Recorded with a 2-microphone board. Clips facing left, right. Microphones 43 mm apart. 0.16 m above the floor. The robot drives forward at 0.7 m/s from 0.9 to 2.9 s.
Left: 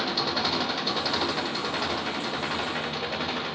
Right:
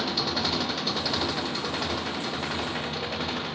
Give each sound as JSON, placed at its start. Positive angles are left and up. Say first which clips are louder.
{"t": 0.0, "sound": "an engine running", "louder": "left 1 dB", "side_deg": 5, "distance_m": 3.0}